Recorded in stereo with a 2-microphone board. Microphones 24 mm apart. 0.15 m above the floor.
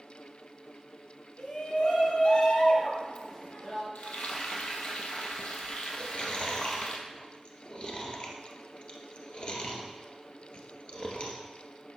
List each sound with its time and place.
1.4 s a shout: 60° left (ahead or behind), 3.5 m; by 3.9 s 30° left (ahead or behind), 2.5 m
4.0 s frying: 55° left (ahead or behind), 1.6 m
6.0 s chewing: 45° left (ahead or behind), 1.7 m